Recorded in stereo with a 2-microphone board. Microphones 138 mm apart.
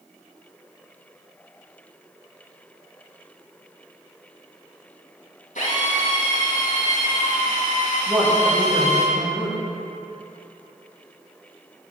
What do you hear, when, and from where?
5.5 s a drill: 80° left, 5.5 m
8.1 s a woman speaking: 10° right (ahead or behind), 6 m